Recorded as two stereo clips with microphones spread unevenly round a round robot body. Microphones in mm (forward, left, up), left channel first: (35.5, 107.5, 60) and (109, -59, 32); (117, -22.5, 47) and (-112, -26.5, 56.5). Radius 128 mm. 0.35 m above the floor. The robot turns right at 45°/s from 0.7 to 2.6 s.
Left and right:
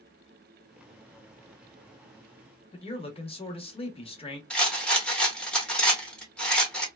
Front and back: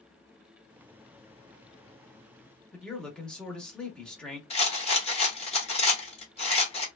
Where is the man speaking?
80° left, 0.9 m.